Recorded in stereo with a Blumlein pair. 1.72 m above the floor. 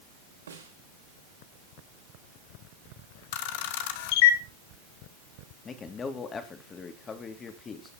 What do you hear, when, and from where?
0.5 s a snare drum: 70° right, 4.5 m
3.3 s a camera shutter: 50° left, 1.7 m
5.7 s a man speaking: 20° left, 2.5 m